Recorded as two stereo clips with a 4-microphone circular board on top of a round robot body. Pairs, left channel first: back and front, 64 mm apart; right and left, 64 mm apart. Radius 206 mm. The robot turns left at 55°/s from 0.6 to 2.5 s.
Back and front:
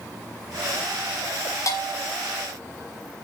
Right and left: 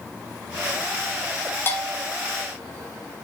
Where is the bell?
145° right, 3.5 m; by 2.1 s 170° right, 3.5 m.